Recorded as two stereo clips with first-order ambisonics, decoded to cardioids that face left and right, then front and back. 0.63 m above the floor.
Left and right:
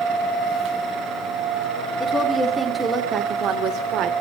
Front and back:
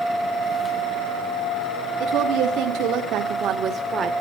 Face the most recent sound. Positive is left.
turn(degrees=-115)